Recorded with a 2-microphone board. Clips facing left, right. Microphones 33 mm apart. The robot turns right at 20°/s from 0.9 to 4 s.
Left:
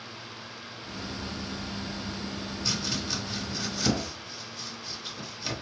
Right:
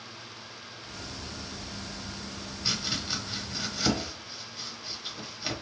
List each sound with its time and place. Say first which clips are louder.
2.6 s chopping: right 1 dB; 25° right (ahead or behind), 1.1 m; by 5.5 s 15° right (ahead or behind), 1.1 m